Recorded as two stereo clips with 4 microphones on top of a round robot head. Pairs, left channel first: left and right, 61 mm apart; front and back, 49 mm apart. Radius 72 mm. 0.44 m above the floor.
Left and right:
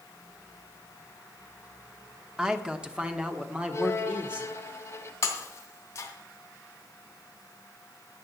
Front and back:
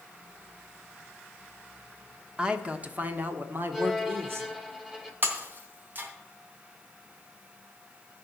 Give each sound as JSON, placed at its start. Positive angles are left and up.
{"t": 2.4, "sound": "a man speaking", "azimuth_deg": -145, "distance_m": 1.3}
{"t": 3.7, "sound": "a violin", "azimuth_deg": 100, "distance_m": 2.0}
{"t": 5.2, "sound": "breaking glass", "azimuth_deg": 135, "distance_m": 3.0}